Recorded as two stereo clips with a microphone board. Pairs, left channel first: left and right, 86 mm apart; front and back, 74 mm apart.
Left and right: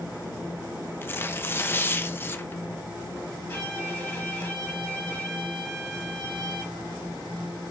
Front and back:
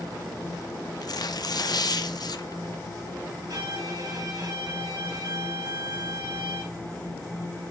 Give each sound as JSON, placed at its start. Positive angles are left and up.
{"t": 1.0, "sound": "tearing paper", "azimuth_deg": 25, "distance_m": 0.7}
{"t": 3.5, "sound": "a violin", "azimuth_deg": 150, "distance_m": 2.5}